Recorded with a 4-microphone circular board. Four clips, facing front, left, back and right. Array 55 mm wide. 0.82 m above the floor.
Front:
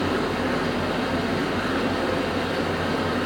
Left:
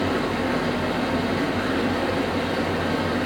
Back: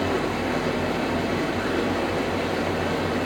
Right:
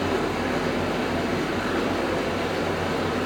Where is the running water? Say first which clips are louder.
Left 1 dB, front 1 dB; 15° left, 3 m.